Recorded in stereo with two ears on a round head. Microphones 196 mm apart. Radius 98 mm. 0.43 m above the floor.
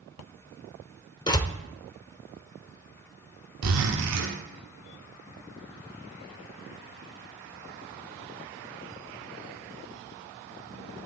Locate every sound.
1.3 s a door slam: 20° left (ahead or behind), 1.0 m
3.6 s a zipper: 85° right, 2.5 m